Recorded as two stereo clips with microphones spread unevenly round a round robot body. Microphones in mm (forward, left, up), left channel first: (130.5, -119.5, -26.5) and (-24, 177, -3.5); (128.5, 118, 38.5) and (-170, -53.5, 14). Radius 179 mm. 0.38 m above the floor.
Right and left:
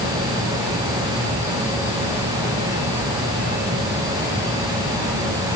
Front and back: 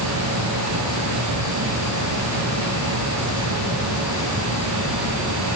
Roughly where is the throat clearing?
No throat clearing in this recording.